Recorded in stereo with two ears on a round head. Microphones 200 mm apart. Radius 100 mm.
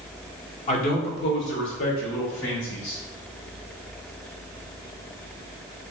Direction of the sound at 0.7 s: 30° left (ahead or behind).